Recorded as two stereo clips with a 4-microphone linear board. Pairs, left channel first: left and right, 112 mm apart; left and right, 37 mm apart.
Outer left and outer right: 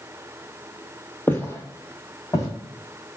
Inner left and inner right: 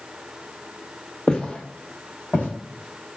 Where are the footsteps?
20° left (ahead or behind), 0.8 m; by 2.5 s 35° left (ahead or behind), 1.6 m.